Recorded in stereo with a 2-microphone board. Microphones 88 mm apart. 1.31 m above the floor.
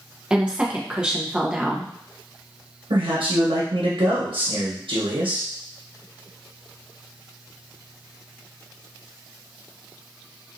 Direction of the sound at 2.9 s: 80° right.